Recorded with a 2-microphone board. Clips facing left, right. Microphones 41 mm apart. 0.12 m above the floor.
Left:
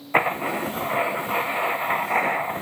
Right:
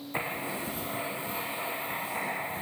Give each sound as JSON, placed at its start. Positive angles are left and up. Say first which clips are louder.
{"t": 0.1, "sound": "writing", "louder": "left 12 dB", "side_deg": 55, "distance_m": 1.5}